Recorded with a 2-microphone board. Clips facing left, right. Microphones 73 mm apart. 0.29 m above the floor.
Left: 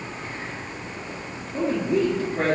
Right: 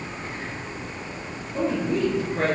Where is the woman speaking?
10° left (ahead or behind), 4 m; by 2.5 s 5° left (ahead or behind), 5 m.